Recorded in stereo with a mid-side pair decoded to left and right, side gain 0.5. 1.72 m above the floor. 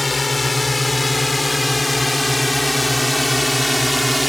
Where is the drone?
20° left; by 4.3 s straight ahead.